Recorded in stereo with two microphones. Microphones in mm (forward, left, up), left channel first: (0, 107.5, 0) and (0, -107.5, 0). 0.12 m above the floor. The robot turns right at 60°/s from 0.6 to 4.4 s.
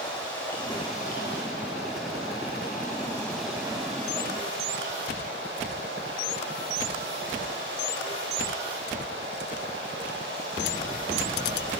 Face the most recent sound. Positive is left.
turn(degrees=-120)